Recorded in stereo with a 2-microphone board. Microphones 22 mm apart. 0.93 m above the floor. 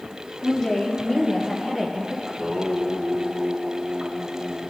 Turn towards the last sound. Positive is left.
turn(degrees=-20)  # may be behind; listen again after turning